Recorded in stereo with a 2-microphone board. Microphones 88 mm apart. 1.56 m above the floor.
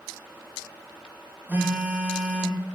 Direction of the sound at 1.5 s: 20° right (ahead or behind).